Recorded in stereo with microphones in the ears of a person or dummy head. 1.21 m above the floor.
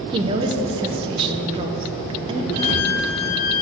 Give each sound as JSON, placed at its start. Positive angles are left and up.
{"t": 0.1, "sound": "a woman speaking", "side_deg": -25, "distance_m": 0.6}
{"t": 2.5, "sound": "a violin", "side_deg": -55, "distance_m": 0.9}